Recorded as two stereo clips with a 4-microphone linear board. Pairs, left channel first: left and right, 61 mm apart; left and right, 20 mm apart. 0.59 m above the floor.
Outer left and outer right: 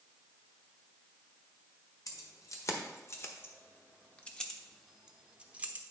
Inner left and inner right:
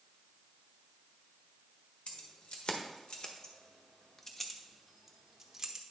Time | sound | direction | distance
2.1 | keys jangling | 60° left (ahead or behind) | 1.5 m